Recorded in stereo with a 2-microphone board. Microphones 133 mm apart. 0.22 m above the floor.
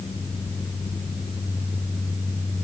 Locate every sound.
Only background noise.